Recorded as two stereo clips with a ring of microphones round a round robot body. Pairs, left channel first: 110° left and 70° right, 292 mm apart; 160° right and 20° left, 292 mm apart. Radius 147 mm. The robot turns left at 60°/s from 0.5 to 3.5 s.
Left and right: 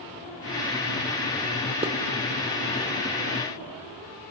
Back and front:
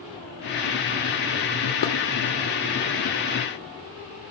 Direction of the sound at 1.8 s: 140° right.